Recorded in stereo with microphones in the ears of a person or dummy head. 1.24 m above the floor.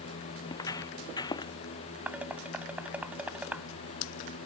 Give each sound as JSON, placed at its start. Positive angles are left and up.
{"t": 0.5, "sound": "footsteps", "side_deg": 15}
{"t": 2.1, "sound": "dishes clattering", "side_deg": -10}